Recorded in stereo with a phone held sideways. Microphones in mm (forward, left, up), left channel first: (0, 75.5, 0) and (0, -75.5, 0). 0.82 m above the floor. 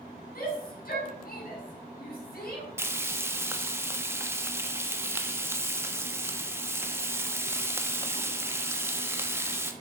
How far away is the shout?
About 6.5 m.